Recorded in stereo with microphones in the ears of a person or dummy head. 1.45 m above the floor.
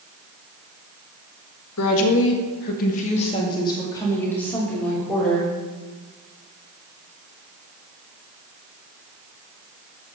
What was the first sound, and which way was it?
A woman speaking, 80° left.